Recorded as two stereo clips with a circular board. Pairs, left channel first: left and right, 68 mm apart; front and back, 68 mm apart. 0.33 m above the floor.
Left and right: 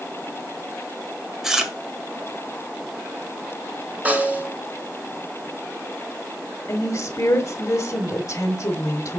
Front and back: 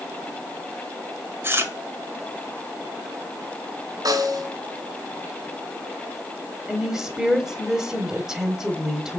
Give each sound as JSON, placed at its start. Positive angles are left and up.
{"t": 1.4, "sound": "chewing", "azimuth_deg": -170, "distance_m": 1.6}
{"t": 4.0, "sound": "a snare drum", "azimuth_deg": -155, "distance_m": 2.0}
{"t": 6.7, "sound": "a woman speaking", "azimuth_deg": 100, "distance_m": 1.5}